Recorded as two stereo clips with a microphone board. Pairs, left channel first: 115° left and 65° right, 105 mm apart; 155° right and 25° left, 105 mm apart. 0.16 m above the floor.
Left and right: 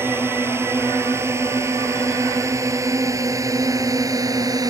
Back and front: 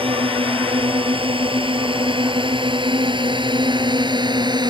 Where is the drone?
Straight ahead; by 4.7 s 20° right.